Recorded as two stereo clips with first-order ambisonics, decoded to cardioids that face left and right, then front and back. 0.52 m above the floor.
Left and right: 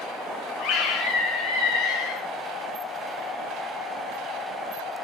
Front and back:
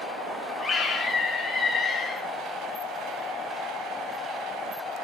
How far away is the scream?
About 1.1 m.